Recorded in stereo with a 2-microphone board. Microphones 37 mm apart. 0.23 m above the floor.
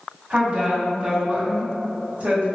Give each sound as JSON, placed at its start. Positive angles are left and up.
{"t": 0.3, "sound": "a woman speaking", "side_deg": -35, "distance_m": 1.9}